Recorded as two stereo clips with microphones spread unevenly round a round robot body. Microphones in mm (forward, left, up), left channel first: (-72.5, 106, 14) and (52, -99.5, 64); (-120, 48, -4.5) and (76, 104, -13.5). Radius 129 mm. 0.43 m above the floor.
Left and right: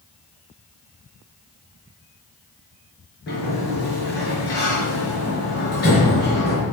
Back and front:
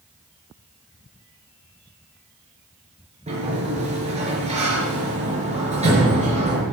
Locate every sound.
3.3 s a sliding door: 75° left, 5.5 m